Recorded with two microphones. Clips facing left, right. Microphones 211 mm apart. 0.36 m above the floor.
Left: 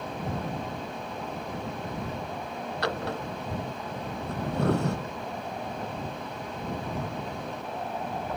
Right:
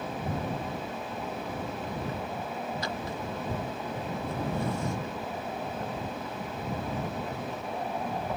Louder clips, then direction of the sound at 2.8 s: Left 3 dB; 70° left (ahead or behind).